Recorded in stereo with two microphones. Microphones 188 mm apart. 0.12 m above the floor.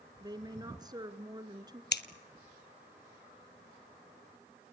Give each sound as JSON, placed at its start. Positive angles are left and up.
{"t": 0.2, "sound": "a woman speaking", "side_deg": -20, "distance_m": 1.3}
{"t": 1.9, "sound": "scissors", "side_deg": 70, "distance_m": 0.9}